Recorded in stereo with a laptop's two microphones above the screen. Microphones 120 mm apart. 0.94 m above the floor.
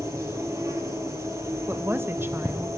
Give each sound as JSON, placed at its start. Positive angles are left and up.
{"t": 0.0, "sound": "an insect", "side_deg": -25, "distance_m": 2.5}
{"t": 1.7, "sound": "a woman speaking", "side_deg": -20, "distance_m": 0.8}